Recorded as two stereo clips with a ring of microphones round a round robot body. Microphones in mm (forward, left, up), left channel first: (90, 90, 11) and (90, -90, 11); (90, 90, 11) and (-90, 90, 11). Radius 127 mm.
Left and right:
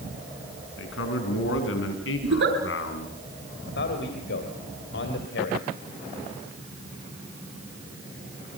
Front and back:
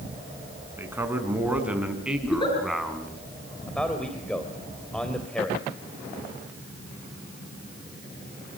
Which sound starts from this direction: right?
A giggle, at 2.2 s.